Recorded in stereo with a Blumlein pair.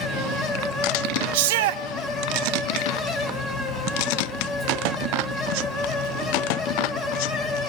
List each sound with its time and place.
0.0 s a fan: 25° left, 3 m
1.3 s a shout: 50° right, 0.9 m